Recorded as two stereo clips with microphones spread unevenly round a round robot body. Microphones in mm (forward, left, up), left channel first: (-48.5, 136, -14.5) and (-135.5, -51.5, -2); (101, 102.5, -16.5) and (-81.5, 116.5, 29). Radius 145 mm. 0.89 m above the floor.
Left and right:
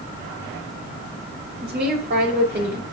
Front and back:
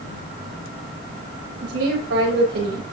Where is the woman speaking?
150° right, 6 m.